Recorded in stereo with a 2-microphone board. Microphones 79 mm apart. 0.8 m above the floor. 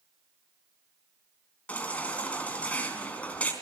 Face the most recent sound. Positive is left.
turn(degrees=20)  # may be behind; listen again after turning